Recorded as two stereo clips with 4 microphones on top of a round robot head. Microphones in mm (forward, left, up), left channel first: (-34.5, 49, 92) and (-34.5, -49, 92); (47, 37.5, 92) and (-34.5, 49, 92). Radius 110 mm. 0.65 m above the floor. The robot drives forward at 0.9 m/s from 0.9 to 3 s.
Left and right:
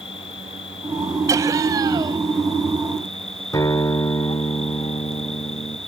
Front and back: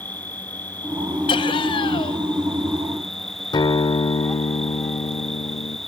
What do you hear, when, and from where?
0.0 s an insect: 60° left; by 5.9 s 75° left
1.3 s laughter: 30° right; by 2.2 s 35° right
3.5 s a guitar: 25° left